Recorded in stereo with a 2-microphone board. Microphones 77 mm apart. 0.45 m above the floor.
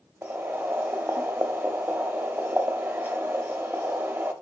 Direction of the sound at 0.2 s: 25° right (ahead or behind).